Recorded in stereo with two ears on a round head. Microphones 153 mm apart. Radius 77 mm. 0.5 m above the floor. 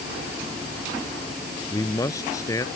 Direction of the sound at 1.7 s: 20° left (ahead or behind).